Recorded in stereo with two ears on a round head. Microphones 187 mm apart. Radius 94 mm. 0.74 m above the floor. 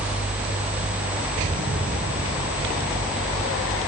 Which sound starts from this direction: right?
An explosion, at 1.4 s.